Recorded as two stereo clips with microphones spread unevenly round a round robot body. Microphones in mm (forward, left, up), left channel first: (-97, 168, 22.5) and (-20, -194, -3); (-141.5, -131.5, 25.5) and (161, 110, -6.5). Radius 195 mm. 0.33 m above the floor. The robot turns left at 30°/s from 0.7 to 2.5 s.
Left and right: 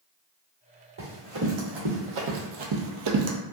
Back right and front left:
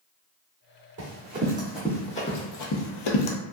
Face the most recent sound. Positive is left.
turn(degrees=-135)